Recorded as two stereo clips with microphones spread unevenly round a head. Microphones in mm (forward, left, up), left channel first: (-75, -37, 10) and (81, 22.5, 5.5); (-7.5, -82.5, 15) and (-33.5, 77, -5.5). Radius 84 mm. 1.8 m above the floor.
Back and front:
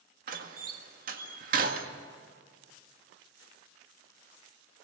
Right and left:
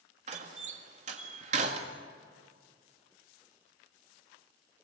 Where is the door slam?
50° left, 1.9 m.